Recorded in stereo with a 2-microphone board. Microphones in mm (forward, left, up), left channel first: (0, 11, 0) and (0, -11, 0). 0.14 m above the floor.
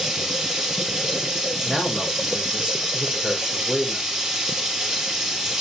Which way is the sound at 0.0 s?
25° right (ahead or behind).